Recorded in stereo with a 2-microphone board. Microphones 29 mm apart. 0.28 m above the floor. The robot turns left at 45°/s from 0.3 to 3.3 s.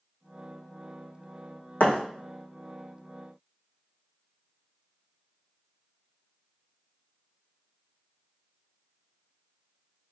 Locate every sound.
1.8 s a thud: 65° left (ahead or behind), 0.9 m; by 2.0 s 55° left (ahead or behind), 0.9 m